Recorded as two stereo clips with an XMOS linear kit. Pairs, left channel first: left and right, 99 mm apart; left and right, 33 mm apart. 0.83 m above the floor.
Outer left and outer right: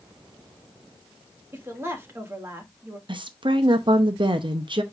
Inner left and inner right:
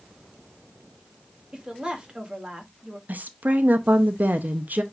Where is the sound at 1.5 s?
25° right (ahead or behind), 1.6 m.